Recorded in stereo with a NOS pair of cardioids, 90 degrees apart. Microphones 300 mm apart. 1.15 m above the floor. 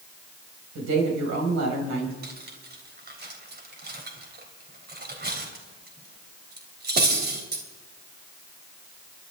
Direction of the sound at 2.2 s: 35° right.